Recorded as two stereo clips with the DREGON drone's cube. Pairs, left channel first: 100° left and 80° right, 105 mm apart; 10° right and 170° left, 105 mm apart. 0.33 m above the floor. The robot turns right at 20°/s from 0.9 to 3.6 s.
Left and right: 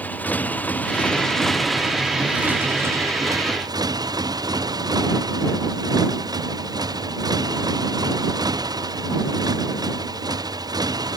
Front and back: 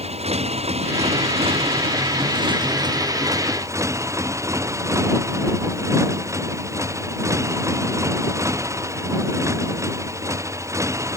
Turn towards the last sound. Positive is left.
turn(degrees=-130)